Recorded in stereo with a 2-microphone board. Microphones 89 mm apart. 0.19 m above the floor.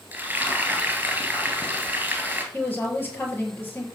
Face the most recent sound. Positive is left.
turn(degrees=25)  # may be behind; listen again after turning